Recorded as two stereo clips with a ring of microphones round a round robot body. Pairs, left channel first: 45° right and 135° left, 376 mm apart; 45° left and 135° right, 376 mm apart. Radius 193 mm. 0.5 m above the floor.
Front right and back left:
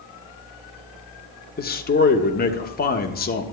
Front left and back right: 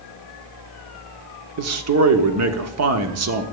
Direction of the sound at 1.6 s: 105° right.